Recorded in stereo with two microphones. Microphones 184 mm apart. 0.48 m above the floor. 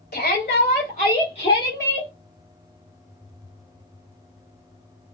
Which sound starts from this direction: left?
A shout, at 0.1 s.